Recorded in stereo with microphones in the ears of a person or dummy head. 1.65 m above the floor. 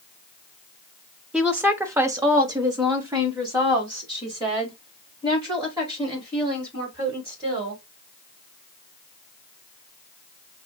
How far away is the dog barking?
No dog barking in this recording.